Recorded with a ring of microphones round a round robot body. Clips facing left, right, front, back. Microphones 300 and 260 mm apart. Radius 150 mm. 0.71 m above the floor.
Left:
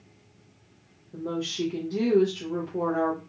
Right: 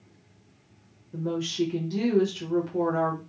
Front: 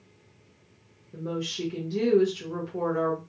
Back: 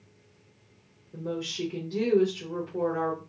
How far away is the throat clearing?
No throat clearing in this recording.